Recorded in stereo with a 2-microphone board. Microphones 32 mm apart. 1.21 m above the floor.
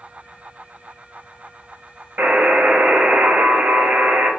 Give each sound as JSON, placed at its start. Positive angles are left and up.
{"t": 2.2, "sound": "a buzzer", "side_deg": -70, "distance_m": 0.9}